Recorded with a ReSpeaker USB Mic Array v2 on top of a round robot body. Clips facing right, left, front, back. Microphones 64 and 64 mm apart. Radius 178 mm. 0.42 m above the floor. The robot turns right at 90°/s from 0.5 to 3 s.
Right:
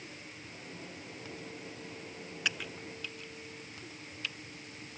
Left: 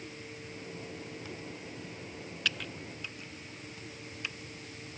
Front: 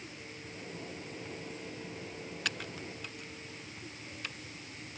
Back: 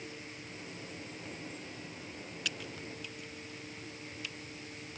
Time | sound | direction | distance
2.5 | typing on a keyboard | 20° right | ?